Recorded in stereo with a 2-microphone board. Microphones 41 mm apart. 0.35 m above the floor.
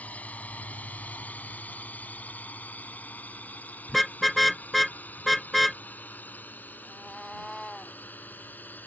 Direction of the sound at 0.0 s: 40° left (ahead or behind).